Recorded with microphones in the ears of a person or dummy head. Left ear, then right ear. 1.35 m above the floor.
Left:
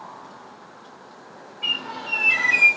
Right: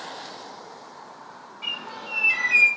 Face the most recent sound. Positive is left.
turn(degrees=-55)  # may be behind; listen again after turning